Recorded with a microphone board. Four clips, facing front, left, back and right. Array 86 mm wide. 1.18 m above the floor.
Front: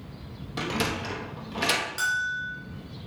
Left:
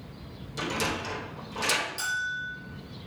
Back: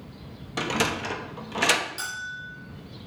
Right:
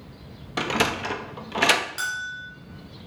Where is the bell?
65° right, 2.5 m.